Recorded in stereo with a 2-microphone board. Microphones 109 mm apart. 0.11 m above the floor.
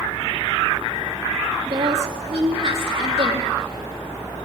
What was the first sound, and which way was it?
A woman speaking, 50° right (ahead or behind).